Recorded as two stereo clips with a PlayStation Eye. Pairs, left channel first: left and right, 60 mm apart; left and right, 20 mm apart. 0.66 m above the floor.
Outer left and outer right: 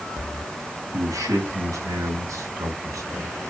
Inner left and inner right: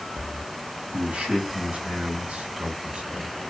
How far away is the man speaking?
About 8 m.